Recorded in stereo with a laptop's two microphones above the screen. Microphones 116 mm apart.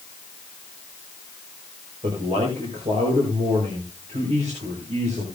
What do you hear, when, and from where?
2.0 s a man speaking: 75° right (ahead or behind), 4.5 m